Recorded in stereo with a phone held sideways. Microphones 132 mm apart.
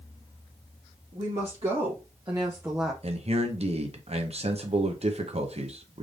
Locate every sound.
1.1 s a woman speaking: 60° right (ahead or behind), 1.7 m; by 2.9 s 5° left (ahead or behind), 0.6 m
3.0 s a man speaking: 55° right (ahead or behind), 0.8 m